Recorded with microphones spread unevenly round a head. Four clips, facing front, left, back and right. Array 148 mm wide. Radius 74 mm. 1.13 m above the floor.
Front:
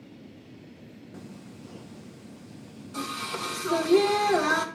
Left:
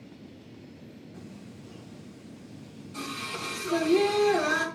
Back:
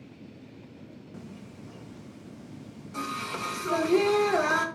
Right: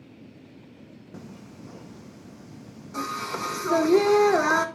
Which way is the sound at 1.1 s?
70° right.